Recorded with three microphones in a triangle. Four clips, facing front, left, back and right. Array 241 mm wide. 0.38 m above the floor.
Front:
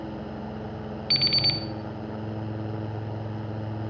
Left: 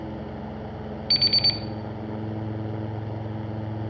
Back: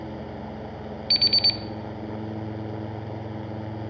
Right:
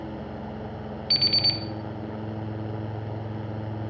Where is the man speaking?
I don't hear a man speaking.